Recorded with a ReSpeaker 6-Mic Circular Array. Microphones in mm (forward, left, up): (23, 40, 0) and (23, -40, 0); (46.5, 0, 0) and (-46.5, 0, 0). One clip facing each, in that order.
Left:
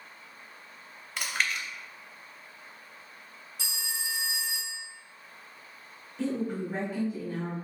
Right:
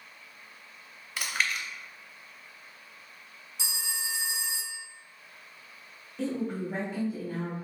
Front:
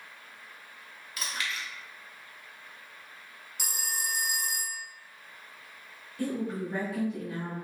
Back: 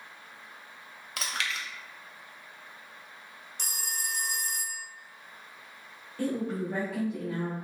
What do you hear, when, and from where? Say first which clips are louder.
1.2 s chewing: even, back 1 dB; straight behind, 0.6 m
3.6 s a phone ringing: even, front 2 dB; 65° right, 0.6 m
6.2 s a woman speaking: left 1 dB, back 1 dB; 135° right, 1.7 m